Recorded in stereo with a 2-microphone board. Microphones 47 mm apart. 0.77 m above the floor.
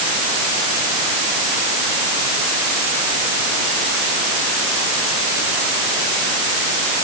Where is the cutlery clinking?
No cutlery clinking in this recording.